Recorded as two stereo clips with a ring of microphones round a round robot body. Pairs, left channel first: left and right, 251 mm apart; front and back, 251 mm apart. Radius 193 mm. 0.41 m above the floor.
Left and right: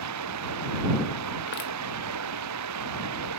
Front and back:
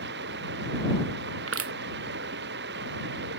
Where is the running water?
120° right.